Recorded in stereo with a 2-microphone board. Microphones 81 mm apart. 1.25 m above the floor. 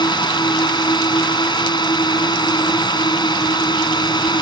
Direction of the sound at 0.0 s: 60° left (ahead or behind).